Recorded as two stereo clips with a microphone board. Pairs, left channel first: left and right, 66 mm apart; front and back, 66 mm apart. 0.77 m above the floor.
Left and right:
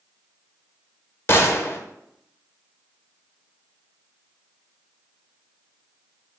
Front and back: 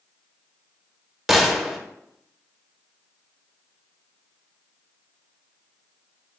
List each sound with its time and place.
1.3 s a gunshot: 95° left, 0.5 m